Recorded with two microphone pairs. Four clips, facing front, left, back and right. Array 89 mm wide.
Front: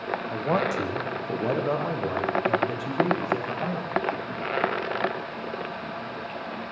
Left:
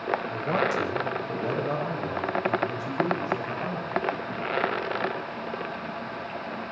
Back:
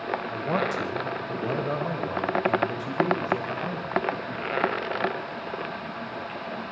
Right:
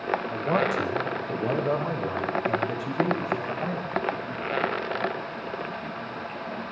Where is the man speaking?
15° right, 6.5 m; by 4.0 s 25° right, 11 m.